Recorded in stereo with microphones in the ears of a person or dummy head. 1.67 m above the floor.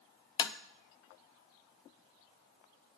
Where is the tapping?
20° left (ahead or behind), 0.6 m.